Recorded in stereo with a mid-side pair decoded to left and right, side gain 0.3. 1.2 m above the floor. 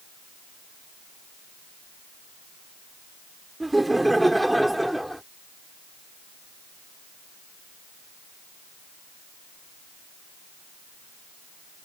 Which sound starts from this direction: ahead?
Laughter, at 3.6 s.